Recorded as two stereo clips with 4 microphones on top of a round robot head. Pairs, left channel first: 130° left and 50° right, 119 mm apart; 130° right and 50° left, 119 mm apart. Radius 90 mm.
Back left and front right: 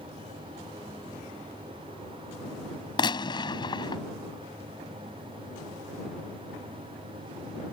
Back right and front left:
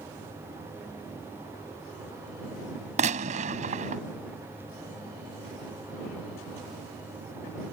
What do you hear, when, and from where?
3.0 s a gunshot: 75° left